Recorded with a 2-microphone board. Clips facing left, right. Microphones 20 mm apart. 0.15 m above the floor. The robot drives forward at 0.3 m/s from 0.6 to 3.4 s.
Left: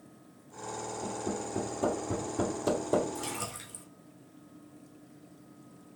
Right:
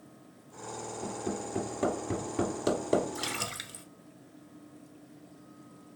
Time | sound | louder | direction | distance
1.0 | hammering | right 1 dB | 45° right (ahead or behind) | 2 m
3.1 | a splash | right 3 dB | 55° right (ahead or behind) | 0.9 m